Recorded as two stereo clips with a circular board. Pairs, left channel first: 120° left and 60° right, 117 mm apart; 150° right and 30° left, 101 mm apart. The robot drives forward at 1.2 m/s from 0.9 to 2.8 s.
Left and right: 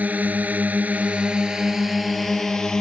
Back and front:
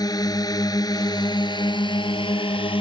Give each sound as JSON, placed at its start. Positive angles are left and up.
{"t": 0.0, "sound": "a drone", "azimuth_deg": -130}